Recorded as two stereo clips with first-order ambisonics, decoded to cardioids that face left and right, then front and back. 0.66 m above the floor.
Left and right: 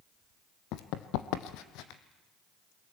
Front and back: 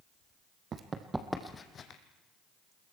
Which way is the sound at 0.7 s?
120° left.